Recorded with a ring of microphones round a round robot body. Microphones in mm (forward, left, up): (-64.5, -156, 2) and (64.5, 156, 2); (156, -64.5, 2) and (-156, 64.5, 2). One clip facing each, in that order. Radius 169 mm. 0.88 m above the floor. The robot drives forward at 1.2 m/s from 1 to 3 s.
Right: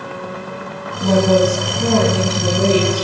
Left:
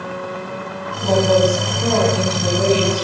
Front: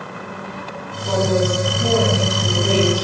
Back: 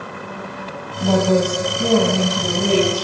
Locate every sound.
1.0 s a woman speaking: 175° right, 6 m; by 3.0 s straight behind, 8.5 m